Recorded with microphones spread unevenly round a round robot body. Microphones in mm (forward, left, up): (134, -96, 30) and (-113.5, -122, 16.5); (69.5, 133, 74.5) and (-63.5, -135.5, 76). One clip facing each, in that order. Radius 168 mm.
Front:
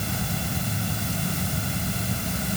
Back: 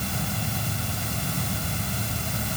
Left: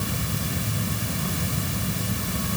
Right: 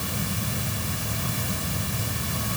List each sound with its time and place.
Only background noise.